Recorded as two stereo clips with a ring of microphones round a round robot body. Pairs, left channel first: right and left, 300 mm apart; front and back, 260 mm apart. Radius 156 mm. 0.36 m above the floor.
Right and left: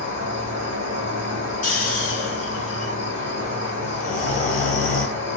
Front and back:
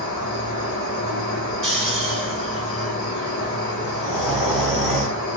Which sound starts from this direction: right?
Snoring, at 1.6 s.